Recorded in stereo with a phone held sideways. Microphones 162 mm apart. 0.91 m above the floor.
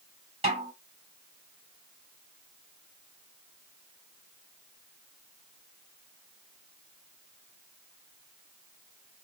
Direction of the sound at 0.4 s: 40° right (ahead or behind).